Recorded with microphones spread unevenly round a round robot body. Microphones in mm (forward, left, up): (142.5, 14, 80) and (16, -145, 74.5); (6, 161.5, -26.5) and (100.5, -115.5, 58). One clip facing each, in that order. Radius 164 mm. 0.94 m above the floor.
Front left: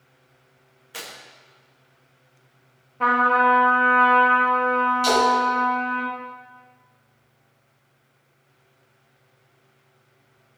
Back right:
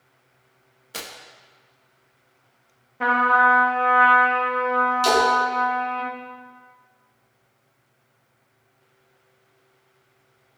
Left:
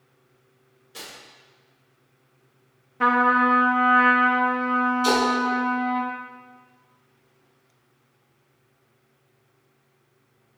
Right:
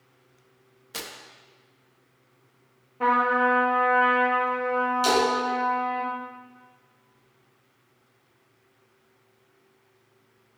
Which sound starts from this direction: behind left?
A trumpet, at 3.0 s.